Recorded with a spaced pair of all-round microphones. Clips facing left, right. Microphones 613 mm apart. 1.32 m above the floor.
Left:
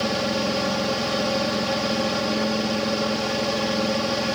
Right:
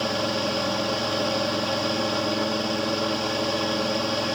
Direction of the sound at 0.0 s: 50° left (ahead or behind).